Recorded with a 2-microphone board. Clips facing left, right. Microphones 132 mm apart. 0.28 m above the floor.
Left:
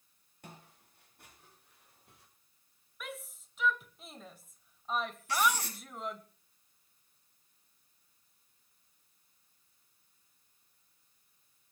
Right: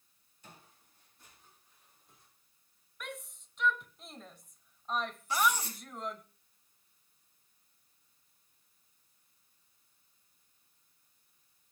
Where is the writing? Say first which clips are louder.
Even; 75° left (ahead or behind), 6.5 m.